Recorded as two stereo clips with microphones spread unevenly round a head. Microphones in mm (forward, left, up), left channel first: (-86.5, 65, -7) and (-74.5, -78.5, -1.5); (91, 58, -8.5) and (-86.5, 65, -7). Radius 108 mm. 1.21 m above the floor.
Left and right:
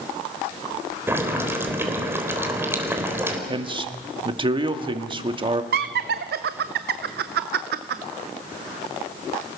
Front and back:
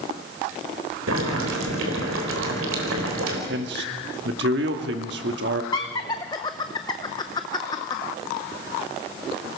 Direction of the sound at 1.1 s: 160° right.